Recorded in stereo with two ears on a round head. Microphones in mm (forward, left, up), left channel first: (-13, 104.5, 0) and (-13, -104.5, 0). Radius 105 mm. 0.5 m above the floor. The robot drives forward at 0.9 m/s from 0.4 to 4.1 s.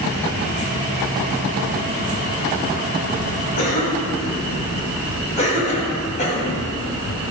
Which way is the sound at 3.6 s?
35° left (ahead or behind).